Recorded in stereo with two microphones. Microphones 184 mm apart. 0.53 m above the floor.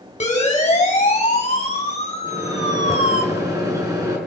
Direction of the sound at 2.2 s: 20° right (ahead or behind).